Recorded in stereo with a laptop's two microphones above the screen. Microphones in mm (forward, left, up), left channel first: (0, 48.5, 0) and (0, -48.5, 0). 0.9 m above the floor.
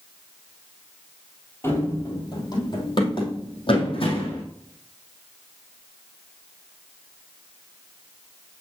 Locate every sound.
1.6 s running footsteps: 25° left (ahead or behind), 1.8 m; by 4.4 s 70° left (ahead or behind), 3 m